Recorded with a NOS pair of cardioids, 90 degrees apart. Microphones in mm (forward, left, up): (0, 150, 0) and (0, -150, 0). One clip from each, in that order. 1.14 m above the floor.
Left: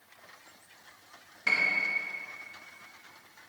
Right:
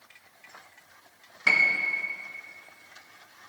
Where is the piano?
35° right, 1.2 m.